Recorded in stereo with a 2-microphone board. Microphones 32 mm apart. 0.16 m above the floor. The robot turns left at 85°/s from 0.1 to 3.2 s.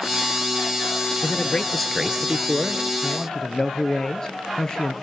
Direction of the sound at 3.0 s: 35° left (ahead or behind).